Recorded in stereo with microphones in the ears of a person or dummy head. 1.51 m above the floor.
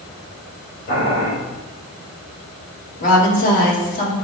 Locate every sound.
0.9 s boiling: 55° left (ahead or behind), 4 m
3.0 s a woman speaking: 45° left (ahead or behind), 3.5 m